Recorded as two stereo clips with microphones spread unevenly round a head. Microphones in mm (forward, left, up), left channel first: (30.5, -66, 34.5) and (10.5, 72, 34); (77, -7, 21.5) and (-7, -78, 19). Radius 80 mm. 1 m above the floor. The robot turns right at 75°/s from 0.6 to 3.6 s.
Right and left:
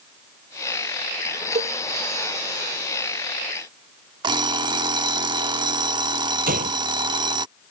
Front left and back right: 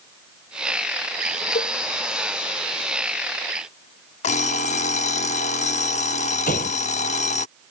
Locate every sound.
1.6 s a cowbell: 50° left; by 1.8 s 65° left
4.2 s an alarm clock: 40° left
6.5 s a gunshot: 75° left